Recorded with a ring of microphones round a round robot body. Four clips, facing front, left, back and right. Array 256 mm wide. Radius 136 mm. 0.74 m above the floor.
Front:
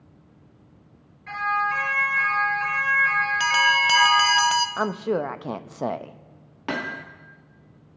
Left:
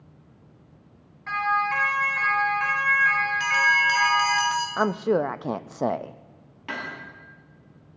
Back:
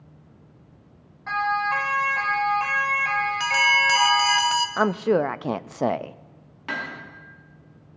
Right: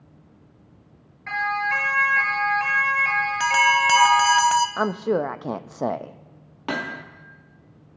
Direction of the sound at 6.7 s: 50° right.